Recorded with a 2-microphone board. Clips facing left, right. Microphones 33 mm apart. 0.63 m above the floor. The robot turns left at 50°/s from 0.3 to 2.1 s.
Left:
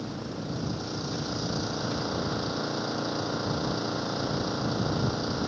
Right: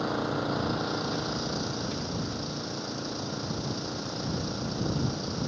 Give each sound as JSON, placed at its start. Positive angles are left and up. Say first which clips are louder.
{"t": 0.0, "sound": "an engine running", "louder": "right 6 dB", "azimuth_deg": -115}